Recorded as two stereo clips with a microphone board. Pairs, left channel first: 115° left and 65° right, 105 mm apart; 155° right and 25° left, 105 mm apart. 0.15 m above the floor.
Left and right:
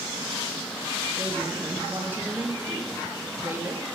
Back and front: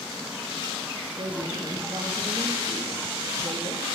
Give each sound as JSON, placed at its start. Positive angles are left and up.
{"t": 1.2, "sound": "a woman speaking", "azimuth_deg": 0, "distance_m": 3.0}